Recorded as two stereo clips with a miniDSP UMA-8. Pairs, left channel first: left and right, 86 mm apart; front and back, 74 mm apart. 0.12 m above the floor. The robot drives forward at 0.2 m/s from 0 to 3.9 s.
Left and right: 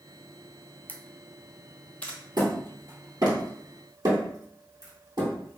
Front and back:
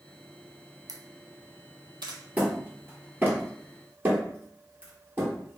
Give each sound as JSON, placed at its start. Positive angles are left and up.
{"t": 0.9, "sound": "a camera shutter", "azimuth_deg": 160, "distance_m": 0.5}
{"t": 2.4, "sound": "hammering", "azimuth_deg": -115, "distance_m": 1.6}